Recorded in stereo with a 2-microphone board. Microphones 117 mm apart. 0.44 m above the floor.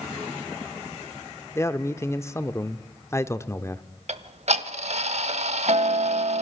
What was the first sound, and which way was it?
A man speaking, 20° left (ahead or behind).